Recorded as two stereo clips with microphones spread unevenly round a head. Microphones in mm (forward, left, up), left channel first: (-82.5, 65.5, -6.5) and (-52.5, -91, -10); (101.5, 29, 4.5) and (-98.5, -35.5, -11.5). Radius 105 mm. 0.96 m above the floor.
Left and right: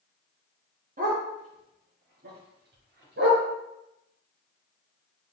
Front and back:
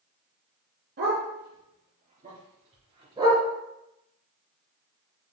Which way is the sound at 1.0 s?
115° right.